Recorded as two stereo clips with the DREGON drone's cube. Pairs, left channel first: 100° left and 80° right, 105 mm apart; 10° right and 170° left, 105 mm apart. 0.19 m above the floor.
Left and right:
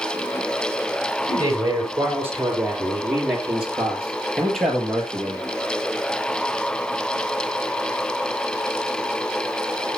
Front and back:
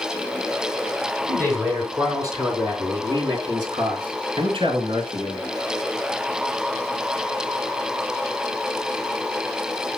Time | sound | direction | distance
1.3 | a man speaking | 130° right | 3 m